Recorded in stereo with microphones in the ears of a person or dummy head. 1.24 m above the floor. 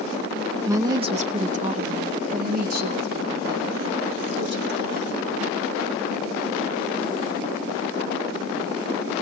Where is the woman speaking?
15° right (ahead or behind), 0.7 m; by 5.5 s 60° right (ahead or behind), 3.5 m.